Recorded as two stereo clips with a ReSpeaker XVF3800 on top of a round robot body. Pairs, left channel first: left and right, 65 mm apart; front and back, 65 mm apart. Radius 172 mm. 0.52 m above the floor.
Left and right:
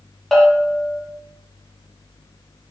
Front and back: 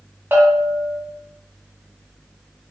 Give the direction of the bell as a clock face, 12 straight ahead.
6 o'clock.